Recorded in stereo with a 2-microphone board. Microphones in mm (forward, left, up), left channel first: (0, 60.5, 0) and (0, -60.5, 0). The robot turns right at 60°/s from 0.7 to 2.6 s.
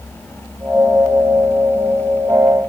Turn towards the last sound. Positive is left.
No sound to turn to.